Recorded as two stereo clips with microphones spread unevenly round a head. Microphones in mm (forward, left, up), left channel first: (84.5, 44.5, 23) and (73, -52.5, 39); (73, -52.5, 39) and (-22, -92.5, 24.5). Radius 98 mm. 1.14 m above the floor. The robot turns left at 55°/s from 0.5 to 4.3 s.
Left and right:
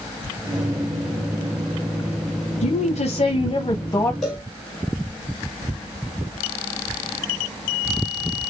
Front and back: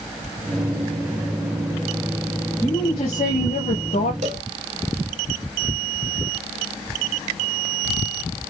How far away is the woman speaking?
About 0.9 m.